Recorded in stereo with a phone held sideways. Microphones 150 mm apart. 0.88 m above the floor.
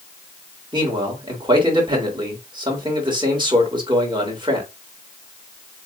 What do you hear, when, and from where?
0.7 s a man speaking: 30° right (ahead or behind), 3.5 m